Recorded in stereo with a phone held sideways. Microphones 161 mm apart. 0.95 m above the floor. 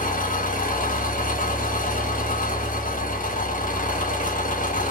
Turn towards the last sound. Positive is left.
turn(degrees=55)  # may be behind; listen again after turning